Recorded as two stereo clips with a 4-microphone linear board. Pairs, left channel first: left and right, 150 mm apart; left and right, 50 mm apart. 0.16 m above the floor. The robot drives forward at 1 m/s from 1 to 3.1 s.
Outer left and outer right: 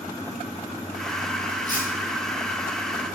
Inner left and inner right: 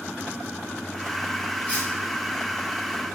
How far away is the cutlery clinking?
About 7.5 m.